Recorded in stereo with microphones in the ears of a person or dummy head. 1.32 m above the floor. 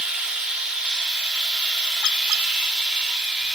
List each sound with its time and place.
0.0 s a machine running: 5° right (ahead or behind), 1.9 m